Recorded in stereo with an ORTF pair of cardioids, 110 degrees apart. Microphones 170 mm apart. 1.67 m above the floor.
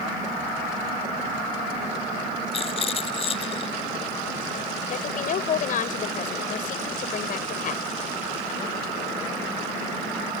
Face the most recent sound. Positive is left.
turn(degrees=55)